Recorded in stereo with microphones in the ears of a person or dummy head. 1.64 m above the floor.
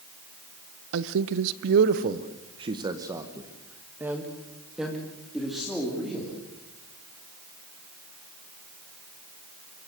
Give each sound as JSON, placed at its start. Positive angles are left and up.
{"t": 0.9, "sound": "a man speaking", "side_deg": -65, "distance_m": 0.9}